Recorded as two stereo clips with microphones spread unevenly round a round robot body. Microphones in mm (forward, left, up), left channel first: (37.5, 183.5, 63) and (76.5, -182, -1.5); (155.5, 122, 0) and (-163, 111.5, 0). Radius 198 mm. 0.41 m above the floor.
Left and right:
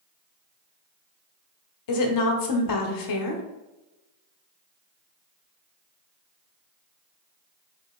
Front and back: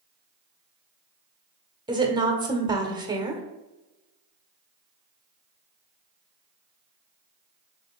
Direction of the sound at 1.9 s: 110° left.